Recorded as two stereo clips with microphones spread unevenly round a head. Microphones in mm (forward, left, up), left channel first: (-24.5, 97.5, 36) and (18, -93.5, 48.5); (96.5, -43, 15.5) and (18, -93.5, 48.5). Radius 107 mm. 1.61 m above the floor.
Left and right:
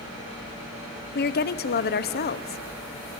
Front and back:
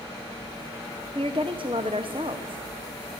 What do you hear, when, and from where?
1.1 s a woman speaking: 150° left, 0.9 m